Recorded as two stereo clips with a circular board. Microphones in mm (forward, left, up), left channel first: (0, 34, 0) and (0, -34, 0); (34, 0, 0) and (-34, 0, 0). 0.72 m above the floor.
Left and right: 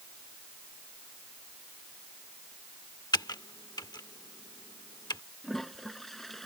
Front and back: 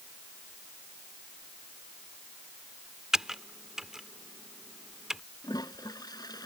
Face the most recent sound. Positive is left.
turn(degrees=5)